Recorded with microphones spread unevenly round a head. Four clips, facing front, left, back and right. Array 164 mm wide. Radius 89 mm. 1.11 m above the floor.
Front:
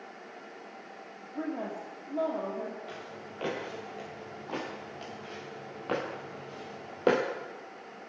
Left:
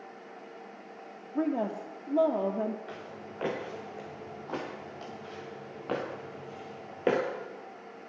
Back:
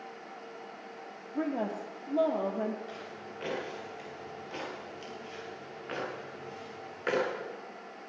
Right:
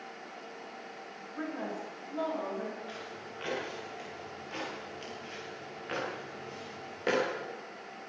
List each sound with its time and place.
1.4 s a woman speaking: 115° left, 3 m
2.9 s footsteps: 65° left, 7 m; by 7.2 s 30° left, 5.5 m